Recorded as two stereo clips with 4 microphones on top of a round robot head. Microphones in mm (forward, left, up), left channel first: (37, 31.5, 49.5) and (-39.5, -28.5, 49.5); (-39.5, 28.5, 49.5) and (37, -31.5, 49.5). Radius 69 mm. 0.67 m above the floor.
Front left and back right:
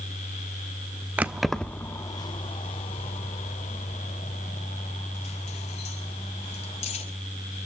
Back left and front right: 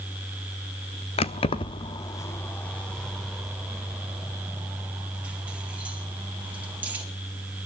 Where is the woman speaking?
I don't hear a woman speaking.